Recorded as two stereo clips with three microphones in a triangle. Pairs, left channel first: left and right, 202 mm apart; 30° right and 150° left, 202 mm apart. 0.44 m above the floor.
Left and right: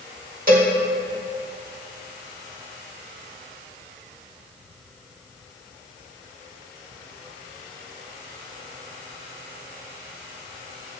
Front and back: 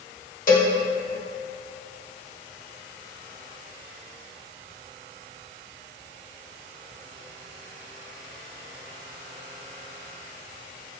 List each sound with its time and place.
0.5 s a cowbell: 60° right, 2.5 m